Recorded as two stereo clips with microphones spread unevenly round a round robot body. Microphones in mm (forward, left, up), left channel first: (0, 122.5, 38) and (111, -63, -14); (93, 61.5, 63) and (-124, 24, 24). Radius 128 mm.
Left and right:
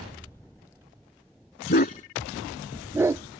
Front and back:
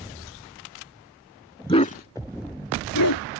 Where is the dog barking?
80° left; by 3.4 s 15° left.